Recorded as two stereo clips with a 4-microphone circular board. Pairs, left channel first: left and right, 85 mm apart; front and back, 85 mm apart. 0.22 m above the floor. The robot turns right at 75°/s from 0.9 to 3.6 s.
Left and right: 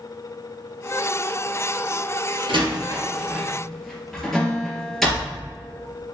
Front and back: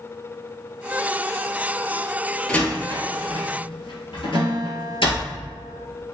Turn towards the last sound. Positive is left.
turn(degrees=165)